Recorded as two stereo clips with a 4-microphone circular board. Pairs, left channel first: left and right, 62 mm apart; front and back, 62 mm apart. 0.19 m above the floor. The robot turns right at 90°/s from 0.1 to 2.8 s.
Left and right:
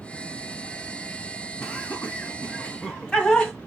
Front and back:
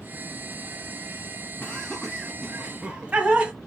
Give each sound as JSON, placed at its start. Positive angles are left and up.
{"t": 1.6, "sound": "laughter", "azimuth_deg": 35, "distance_m": 1.2}